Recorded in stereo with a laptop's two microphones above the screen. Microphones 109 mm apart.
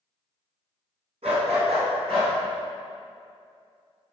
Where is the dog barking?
70° right (ahead or behind), 2 m; by 2.3 s 60° right (ahead or behind), 3 m.